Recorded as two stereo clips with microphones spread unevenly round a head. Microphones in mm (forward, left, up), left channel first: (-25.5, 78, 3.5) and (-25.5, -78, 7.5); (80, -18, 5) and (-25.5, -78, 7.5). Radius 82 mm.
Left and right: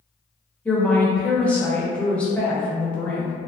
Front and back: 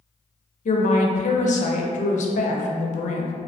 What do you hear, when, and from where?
0.7 s a woman speaking: 5° left, 0.6 m